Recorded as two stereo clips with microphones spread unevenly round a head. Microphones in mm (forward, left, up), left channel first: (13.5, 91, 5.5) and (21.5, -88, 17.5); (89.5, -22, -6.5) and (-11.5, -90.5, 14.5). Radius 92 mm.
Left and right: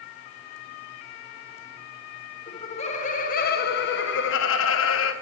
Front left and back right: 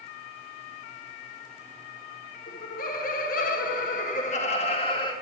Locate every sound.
2.5 s laughter: 30° left, 1.3 m; by 5.1 s 105° left, 1.2 m